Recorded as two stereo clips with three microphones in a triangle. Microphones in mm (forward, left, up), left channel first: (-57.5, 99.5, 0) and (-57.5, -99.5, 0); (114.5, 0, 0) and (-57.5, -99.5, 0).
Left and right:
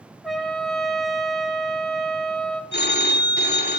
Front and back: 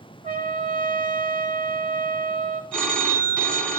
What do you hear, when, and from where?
0.2 s a trumpet: straight behind, 0.6 m
2.7 s a phone ringing: 115° left, 0.9 m